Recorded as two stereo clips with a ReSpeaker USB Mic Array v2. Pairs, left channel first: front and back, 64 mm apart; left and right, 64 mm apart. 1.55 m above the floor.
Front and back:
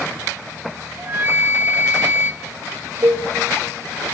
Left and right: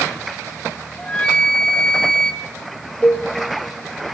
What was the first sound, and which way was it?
A flute, 160° left.